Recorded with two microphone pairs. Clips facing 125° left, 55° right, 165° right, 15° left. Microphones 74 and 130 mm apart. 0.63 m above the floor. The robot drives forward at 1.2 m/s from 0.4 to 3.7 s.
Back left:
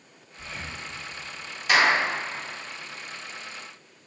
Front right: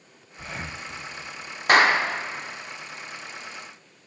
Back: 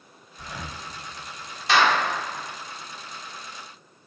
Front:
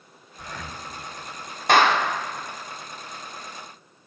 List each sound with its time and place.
0.4 s breathing: 70° right, 0.7 m; by 0.8 s 120° right, 0.7 m
1.7 s a clap: 20° right, 0.9 m; by 2.0 s 35° right, 0.6 m